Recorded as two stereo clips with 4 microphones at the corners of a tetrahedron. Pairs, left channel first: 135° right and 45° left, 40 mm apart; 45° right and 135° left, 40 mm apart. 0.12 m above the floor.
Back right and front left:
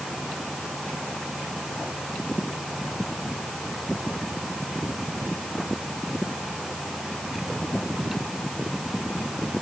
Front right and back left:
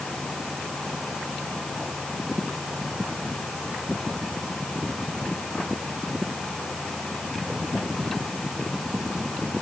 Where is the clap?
No clap in this recording.